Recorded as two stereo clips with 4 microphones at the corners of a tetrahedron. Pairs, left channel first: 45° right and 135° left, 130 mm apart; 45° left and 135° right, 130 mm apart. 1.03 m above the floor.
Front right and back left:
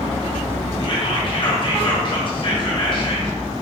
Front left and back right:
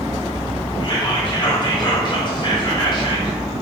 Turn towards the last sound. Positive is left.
turn(degrees=-5)